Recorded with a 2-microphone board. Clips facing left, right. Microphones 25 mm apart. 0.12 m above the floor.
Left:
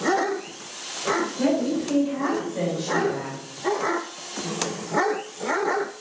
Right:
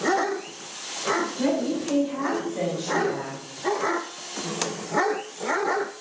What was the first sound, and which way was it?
A woman speaking, 5° left (ahead or behind).